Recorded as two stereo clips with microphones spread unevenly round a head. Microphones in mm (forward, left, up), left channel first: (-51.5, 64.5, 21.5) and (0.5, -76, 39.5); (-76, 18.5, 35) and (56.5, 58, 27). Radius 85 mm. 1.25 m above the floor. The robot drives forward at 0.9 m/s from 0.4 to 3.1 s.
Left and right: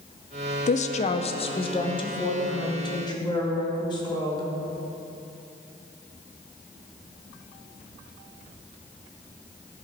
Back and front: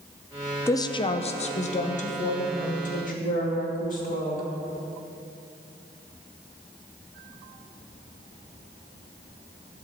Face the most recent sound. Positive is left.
turn(degrees=170)